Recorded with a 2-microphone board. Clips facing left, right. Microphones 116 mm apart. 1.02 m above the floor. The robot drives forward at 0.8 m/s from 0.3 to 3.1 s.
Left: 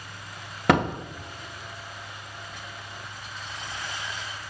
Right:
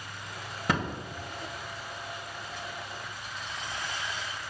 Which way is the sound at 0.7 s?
70° left (ahead or behind).